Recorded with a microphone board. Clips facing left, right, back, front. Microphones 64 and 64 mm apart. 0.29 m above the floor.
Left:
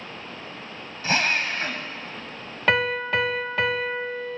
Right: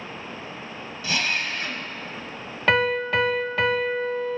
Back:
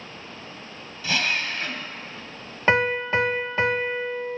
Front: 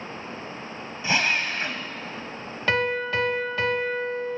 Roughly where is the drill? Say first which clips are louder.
Left 3 dB, front 2 dB; ahead left.